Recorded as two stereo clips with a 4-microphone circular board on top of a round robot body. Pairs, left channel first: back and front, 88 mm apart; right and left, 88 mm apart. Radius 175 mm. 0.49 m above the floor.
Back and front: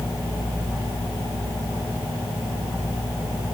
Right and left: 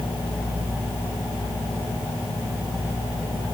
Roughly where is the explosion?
I don't hear an explosion.